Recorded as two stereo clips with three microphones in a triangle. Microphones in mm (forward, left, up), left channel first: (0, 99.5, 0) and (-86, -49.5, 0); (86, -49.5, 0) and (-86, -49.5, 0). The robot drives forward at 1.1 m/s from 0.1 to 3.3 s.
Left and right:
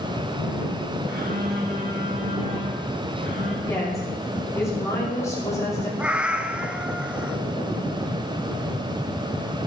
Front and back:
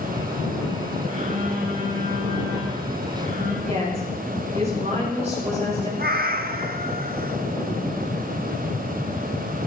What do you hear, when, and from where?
1.1 s a phone buzzing: 135° right, 2.5 m; by 3.6 s 160° right, 4.5 m
3.7 s a woman speaking: 130° left, 6 m
6.0 s a cat meowing: 155° left, 0.8 m